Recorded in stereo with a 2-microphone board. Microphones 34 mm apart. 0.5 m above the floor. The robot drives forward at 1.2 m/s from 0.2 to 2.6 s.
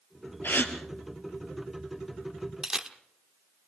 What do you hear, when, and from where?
0.4 s a gasp: 70° left (ahead or behind), 2 m; by 0.7 s 65° left (ahead or behind), 2 m
2.6 s a camera shutter: 10° right (ahead or behind), 1.1 m